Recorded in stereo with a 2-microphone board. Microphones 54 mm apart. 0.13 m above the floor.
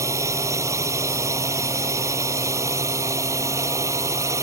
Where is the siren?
I don't hear a siren.